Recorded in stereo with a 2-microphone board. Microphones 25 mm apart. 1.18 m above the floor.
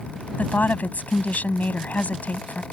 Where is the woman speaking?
80° left; by 2.6 s 70° left (ahead or behind).